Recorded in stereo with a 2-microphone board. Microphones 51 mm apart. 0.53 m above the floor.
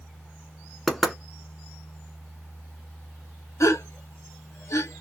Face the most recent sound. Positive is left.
turn(degrees=75)  # may be behind; listen again after turning